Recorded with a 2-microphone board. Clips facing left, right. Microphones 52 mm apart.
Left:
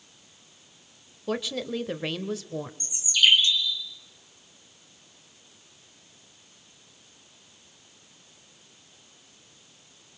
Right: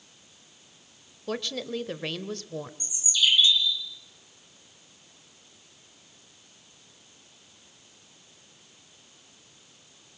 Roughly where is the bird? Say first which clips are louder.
Left 4 dB; left.